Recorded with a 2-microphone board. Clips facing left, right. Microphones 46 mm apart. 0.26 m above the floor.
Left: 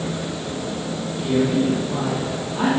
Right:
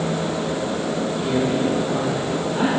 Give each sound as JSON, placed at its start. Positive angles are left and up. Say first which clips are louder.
{"t": 1.2, "sound": "a man speaking", "louder": "left 3 dB", "side_deg": -20, "distance_m": 5.5}